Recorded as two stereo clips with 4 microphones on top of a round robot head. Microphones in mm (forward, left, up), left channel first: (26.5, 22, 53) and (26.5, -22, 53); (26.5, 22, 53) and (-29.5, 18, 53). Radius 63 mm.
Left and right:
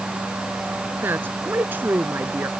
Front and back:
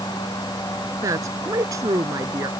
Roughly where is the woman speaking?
Behind right.